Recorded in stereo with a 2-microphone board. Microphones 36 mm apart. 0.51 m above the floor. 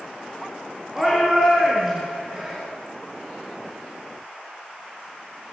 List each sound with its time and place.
0.9 s a shout: 15° right (ahead or behind), 7 m